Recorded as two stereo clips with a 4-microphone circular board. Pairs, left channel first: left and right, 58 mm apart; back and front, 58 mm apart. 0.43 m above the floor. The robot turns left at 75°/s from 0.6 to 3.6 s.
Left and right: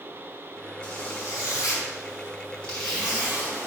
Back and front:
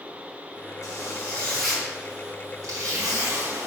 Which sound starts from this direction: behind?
A zipper, at 0.8 s.